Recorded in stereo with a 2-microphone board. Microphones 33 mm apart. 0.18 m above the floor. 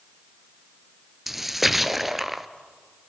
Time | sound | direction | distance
1.3 | a splash | 5° right (ahead or behind) | 0.6 m